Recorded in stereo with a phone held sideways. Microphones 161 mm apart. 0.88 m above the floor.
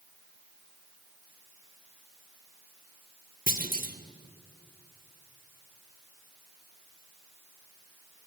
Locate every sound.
3.5 s a clunk: 55° right (ahead or behind), 1.7 m